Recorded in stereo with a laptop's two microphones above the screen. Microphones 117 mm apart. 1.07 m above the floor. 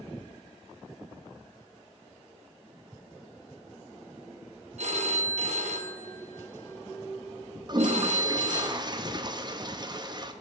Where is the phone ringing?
65° right (ahead or behind), 0.7 m.